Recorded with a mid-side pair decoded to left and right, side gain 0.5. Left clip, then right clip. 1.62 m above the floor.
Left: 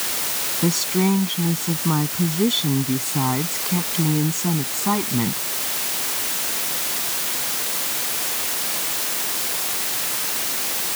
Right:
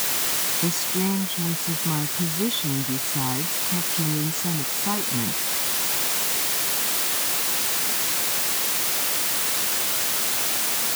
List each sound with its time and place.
0.6 s a woman speaking: 40° left